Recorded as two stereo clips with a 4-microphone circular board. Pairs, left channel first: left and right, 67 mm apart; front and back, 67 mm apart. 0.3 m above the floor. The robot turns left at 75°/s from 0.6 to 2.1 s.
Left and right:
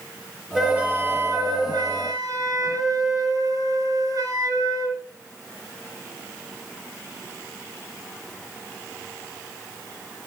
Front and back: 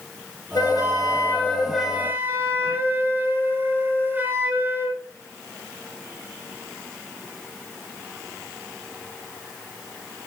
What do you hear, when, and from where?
0.6 s a flute: 5° right, 5 m; by 5.0 s 115° right, 5 m